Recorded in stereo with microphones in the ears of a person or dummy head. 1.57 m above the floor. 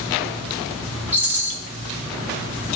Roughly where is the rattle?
Centre.